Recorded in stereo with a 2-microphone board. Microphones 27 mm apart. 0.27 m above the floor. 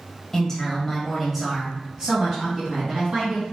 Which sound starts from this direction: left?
A woman speaking, at 0.3 s.